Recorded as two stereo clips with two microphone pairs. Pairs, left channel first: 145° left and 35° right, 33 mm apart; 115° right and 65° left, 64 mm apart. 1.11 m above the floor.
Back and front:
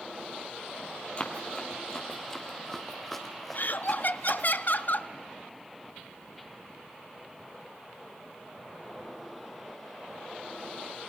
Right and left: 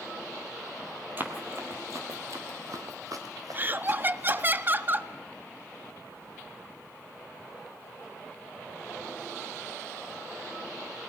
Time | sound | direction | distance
1.2 | running footsteps | 110° left | 1.7 m
3.5 | laughter | 120° left | 0.6 m